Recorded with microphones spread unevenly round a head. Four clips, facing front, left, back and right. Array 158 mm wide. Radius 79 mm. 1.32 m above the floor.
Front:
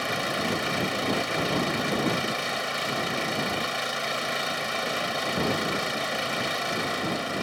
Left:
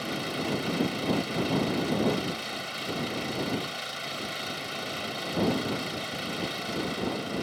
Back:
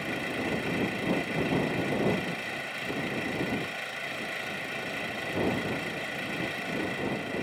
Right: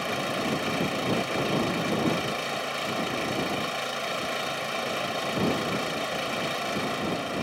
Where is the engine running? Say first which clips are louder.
Right 3 dB, front 4 dB; 40° right.